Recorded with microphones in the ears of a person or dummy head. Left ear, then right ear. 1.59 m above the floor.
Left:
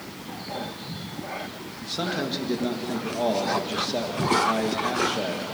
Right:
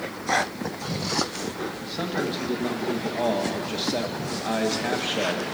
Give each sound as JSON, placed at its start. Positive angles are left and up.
{"t": 1.8, "sound": "a man speaking", "side_deg": 10, "distance_m": 2.5}